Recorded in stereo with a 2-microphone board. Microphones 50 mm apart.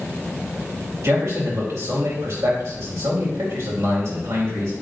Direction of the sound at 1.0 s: 75° right (ahead or behind).